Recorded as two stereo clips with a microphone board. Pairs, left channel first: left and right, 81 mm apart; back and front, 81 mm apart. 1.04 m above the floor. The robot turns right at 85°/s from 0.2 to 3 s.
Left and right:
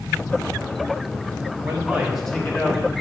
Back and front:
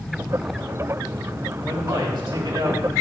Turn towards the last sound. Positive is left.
turn(degrees=65)